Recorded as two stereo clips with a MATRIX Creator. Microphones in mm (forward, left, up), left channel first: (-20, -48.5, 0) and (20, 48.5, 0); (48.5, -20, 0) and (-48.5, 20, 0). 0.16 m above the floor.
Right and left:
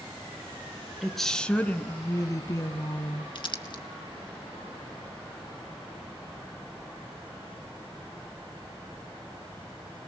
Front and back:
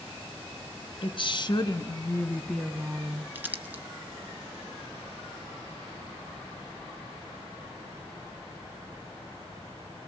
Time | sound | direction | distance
1.0 | a woman speaking | 20° right | 1.9 m
3.4 | crumpling | 135° right | 1.8 m